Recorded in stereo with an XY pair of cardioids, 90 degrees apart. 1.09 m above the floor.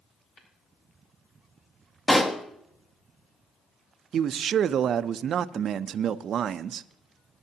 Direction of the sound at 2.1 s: 25° left.